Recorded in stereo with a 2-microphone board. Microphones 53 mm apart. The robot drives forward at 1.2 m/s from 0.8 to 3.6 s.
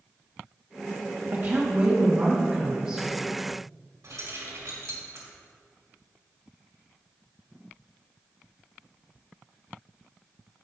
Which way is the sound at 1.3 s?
50° right (ahead or behind).